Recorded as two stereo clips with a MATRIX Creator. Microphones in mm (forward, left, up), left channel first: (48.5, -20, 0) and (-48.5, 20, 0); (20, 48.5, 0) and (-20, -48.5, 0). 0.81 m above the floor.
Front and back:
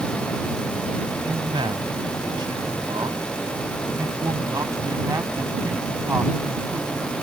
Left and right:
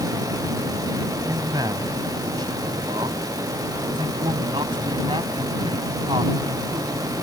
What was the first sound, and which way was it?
A man speaking, 165° right.